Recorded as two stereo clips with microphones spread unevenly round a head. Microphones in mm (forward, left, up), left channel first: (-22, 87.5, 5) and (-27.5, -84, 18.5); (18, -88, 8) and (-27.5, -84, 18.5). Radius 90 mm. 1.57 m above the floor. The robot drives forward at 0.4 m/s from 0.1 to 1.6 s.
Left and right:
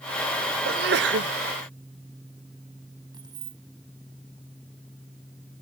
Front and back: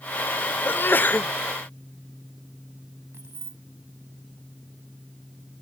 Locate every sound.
0.7 s a sneeze: 50° right; by 1.3 s 65° right
3.1 s keys jangling: 160° right